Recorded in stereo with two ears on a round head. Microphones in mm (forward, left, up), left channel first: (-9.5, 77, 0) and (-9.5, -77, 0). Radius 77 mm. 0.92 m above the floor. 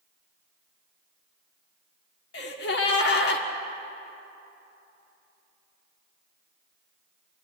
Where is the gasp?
70° left (ahead or behind), 1.7 m.